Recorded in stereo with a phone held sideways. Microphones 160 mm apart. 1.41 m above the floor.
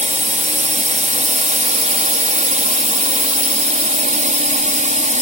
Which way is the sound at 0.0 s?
55° right (ahead or behind).